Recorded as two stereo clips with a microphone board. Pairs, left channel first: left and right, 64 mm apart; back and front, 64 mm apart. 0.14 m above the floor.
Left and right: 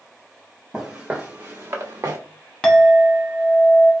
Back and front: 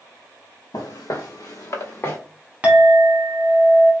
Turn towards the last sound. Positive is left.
turn(degrees=30)